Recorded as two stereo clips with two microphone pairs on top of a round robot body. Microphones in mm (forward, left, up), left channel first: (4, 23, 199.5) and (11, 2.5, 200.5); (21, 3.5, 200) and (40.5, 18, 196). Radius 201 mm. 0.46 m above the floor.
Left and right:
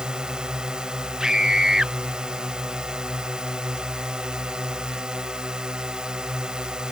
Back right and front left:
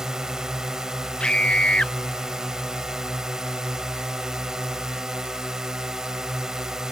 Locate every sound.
0.0 s a drone: 30° right
1.2 s a scream: 120° right